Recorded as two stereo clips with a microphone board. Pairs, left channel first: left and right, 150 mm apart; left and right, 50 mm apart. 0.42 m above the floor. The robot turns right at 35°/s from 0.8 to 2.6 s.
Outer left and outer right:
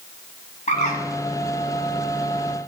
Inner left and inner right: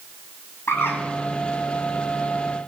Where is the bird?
55° left (ahead or behind), 1.7 m; by 1.0 s 50° left (ahead or behind), 1.7 m.